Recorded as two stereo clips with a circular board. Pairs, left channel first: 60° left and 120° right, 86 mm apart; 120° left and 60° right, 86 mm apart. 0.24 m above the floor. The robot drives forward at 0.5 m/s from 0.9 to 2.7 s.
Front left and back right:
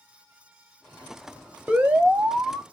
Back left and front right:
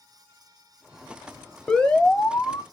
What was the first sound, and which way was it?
An alarm, 175° right.